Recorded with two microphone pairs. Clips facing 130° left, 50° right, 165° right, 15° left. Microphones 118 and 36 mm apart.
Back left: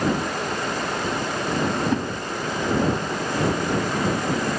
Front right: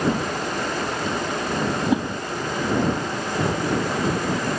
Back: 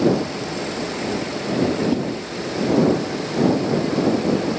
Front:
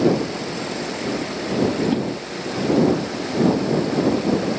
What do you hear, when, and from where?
1.9 s a whoosh: 15° left